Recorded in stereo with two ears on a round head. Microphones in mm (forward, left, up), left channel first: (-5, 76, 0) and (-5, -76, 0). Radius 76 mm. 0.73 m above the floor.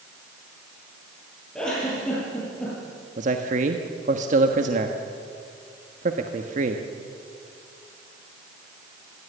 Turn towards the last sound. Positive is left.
turn(degrees=-45)  # may be behind; listen again after turning